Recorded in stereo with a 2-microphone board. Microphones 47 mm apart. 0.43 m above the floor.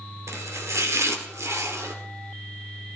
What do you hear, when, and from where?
0.3 s chopping: 85° right, 1.8 m